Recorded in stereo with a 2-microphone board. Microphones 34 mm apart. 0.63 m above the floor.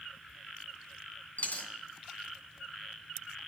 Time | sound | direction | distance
1.4 | a dropped coin | 60° left (ahead or behind) | 2.5 m